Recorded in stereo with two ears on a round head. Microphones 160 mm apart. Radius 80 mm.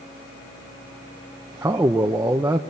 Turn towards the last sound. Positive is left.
turn(degrees=-10)  # may be behind; listen again after turning